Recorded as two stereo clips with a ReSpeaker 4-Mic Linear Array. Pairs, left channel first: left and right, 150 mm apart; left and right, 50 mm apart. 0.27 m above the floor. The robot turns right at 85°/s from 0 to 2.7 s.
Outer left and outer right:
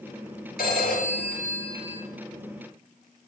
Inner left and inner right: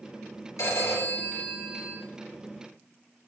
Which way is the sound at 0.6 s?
85° left.